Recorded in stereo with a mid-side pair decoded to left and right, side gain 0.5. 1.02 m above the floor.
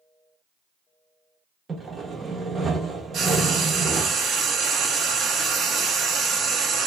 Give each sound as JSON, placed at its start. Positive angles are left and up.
{"t": 1.7, "sound": "sawing", "azimuth_deg": -30, "distance_m": 0.9}
{"t": 3.1, "sound": "frying", "azimuth_deg": -55, "distance_m": 0.9}